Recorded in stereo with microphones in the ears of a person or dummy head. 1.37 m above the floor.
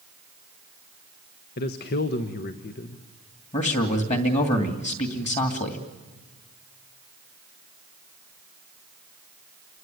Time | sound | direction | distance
1.6 | a man speaking | 55° left (ahead or behind) | 1.1 m
3.5 | a man speaking | 35° left (ahead or behind) | 2.5 m